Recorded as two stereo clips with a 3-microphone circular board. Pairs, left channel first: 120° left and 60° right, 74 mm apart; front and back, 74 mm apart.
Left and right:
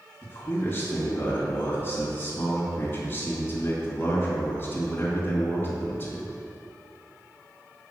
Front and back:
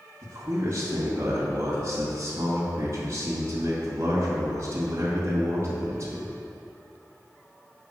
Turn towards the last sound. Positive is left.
turn(degrees=155)